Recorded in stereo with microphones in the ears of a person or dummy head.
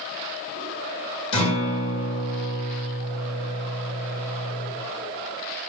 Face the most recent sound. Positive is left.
turn(degrees=40)  # may be behind; listen again after turning